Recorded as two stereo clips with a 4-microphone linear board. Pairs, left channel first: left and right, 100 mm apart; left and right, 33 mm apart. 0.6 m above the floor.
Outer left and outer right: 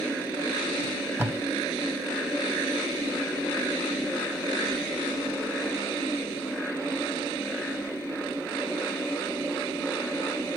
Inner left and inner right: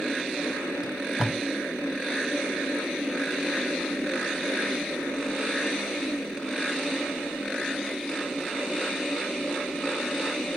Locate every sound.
0.8 s tape being pulled: 20° right (ahead or behind), 1.2 m